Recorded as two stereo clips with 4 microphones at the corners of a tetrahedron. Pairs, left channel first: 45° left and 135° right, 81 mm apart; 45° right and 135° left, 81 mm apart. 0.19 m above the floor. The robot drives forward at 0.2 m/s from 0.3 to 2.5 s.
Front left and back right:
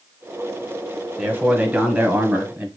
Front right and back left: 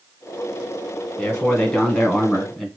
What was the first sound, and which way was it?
A man speaking, 90° right.